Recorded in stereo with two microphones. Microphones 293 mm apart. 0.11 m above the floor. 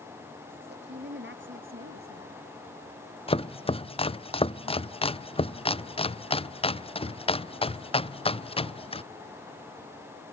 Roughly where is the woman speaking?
Right.